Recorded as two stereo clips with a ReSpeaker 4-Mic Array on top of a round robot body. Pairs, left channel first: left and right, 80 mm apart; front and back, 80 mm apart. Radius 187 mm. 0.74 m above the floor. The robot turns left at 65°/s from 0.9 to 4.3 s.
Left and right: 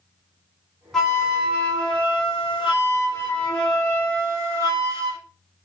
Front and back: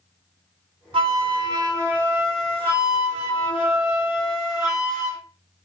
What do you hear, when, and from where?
0.9 s a flute: straight behind, 0.6 m; by 5.2 s 40° right, 0.6 m